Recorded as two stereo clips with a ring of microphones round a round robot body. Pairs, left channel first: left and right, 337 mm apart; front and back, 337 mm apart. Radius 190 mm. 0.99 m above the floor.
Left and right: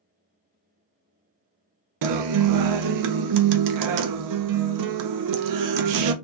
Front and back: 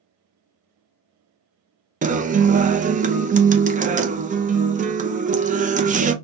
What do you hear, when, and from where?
2.0 s a guitar: 110° right, 0.6 m